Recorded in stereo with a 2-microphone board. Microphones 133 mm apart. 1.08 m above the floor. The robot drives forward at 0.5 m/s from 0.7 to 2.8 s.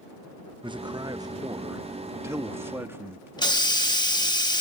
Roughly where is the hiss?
Left.